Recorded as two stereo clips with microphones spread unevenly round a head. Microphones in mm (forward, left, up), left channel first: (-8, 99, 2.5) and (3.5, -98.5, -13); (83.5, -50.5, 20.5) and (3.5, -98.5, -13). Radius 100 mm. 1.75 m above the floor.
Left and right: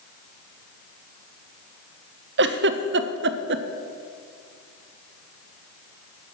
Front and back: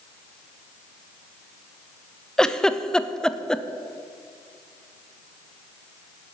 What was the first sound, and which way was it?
A giggle, 45° right.